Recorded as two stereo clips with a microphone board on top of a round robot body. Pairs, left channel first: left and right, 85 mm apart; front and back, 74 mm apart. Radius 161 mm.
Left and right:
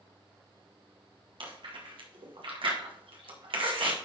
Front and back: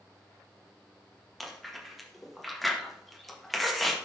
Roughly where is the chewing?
Right.